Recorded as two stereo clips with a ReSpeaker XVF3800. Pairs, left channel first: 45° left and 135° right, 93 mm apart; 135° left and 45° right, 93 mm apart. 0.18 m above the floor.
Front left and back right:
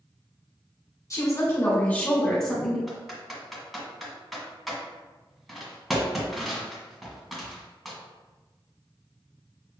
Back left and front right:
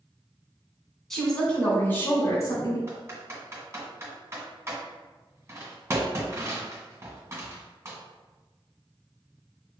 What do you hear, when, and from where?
1.1 s a woman speaking: 50° left, 1.8 m; by 2.8 s 140° left, 1.8 m
2.9 s typing on a keyboard: 45° right, 1.7 m